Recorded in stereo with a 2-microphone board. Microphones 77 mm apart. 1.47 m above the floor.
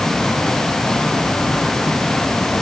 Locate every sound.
Only background noise.